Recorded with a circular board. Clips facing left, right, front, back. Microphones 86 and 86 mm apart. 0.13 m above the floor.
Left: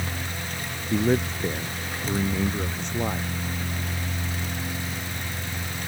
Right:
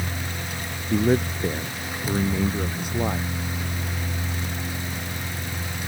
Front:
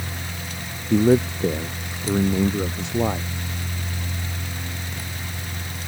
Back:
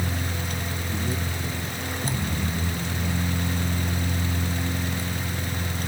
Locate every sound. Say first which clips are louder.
0.9 s a man speaking: right 2 dB, front 17 dB; 5° right